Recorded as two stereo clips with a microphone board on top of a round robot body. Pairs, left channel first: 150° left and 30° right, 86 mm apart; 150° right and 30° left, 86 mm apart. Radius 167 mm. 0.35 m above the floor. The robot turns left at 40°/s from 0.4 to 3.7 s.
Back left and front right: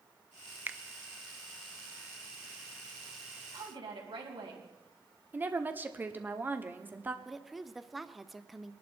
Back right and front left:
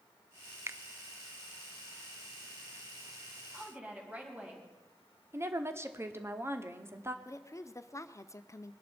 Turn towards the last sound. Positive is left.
turn(degrees=-115)